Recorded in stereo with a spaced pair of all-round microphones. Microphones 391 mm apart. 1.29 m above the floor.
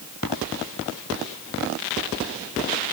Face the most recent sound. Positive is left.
No sound to turn to.